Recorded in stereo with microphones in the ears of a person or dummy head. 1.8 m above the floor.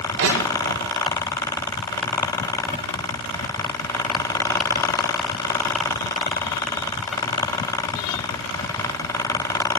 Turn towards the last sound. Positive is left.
turn(degrees=-70)  # may be behind; listen again after turning